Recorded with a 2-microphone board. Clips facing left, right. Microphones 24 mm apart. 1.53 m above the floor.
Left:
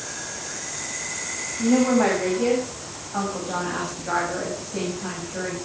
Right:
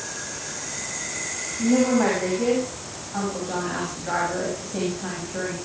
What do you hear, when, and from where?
1.6 s a woman speaking: 10° left (ahead or behind), 8.5 m; by 5.5 s 15° right (ahead or behind), 8.5 m